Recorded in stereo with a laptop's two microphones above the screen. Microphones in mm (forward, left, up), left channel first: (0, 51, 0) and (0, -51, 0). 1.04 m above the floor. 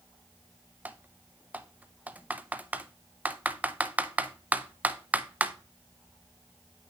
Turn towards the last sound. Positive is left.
turn(degrees=-15)  # may be behind; listen again after turning